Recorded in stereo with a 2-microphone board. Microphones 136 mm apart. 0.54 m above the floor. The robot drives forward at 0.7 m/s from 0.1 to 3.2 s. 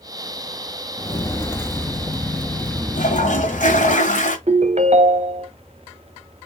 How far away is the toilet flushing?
About 1.4 m.